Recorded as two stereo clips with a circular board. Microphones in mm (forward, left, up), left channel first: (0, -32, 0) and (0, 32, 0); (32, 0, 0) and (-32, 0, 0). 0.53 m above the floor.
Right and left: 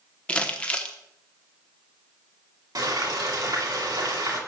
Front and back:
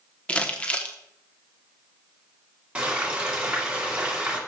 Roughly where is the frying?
Left.